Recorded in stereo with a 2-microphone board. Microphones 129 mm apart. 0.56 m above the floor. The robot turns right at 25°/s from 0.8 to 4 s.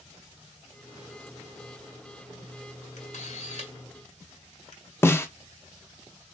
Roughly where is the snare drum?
Centre.